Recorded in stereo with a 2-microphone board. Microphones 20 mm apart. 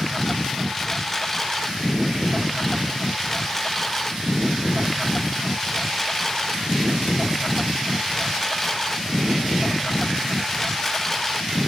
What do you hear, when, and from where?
0.0 s a lawn mower: 20° left (ahead or behind)